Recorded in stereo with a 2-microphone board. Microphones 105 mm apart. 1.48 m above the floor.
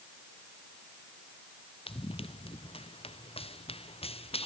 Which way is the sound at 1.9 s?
55° left (ahead or behind).